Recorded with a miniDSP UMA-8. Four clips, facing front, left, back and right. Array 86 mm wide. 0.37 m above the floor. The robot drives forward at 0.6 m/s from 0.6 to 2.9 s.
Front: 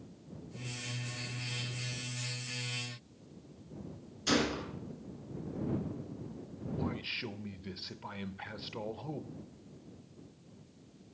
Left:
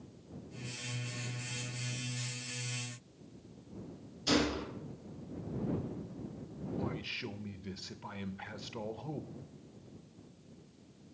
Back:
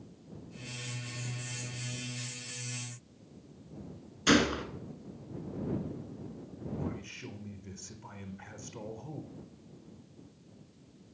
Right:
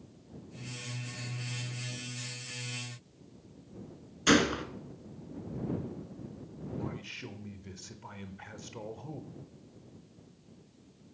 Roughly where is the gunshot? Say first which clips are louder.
Right 5 dB, back 5 dB; behind right.